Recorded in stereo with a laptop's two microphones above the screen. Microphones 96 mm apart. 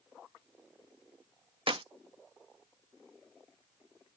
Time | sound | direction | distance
1.7 | a clap | 60° right (ahead or behind) | ?